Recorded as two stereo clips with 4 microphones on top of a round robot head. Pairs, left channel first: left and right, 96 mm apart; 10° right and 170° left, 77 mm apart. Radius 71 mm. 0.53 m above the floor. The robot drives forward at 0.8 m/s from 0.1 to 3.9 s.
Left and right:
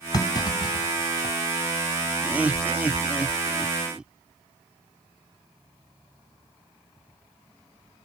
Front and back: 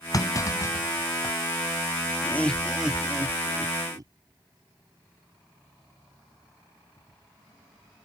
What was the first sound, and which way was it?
A clunk, 30° left.